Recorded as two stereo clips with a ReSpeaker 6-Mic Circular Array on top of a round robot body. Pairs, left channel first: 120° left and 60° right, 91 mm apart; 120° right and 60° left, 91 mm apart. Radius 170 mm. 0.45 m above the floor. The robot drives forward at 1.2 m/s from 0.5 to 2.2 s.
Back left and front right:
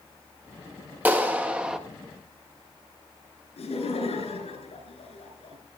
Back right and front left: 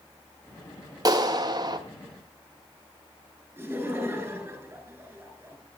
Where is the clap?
10° left, 1.9 m; by 1.8 s 25° left, 1.1 m.